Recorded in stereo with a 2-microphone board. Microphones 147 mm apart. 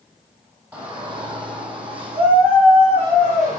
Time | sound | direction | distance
0.7 | a shout | 25° right (ahead or behind) | 3.5 m